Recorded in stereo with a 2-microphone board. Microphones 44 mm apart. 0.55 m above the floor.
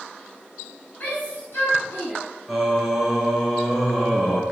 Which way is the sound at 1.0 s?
50° left (ahead or behind).